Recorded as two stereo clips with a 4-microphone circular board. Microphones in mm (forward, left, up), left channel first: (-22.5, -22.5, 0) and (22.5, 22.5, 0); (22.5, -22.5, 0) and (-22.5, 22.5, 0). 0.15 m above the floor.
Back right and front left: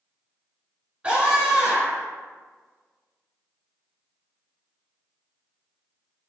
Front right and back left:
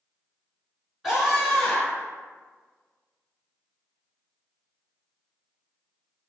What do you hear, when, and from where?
1.0 s a scream: 70° left, 1.7 m; by 2.1 s 5° left, 1.8 m